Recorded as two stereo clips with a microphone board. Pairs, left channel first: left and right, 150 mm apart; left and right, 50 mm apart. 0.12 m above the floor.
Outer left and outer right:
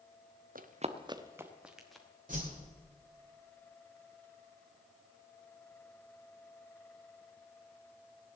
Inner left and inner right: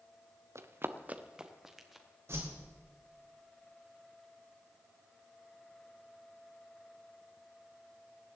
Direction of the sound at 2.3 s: 55° right (ahead or behind).